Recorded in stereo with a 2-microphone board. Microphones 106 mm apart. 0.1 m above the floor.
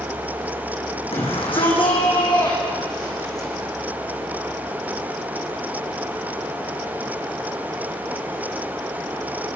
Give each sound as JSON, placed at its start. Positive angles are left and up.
{"t": 1.1, "sound": "a shout", "side_deg": 60, "distance_m": 6.5}